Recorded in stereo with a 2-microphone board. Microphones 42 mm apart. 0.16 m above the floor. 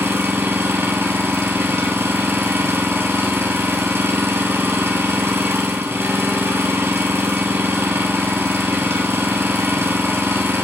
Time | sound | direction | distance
0.0 | an engine running | 75° right (ahead or behind) | 0.9 m